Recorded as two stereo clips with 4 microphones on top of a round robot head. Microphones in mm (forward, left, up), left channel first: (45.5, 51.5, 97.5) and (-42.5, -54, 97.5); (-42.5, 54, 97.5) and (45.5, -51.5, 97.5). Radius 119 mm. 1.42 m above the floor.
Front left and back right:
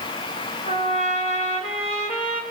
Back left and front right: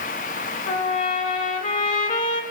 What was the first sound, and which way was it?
A trumpet, 95° left.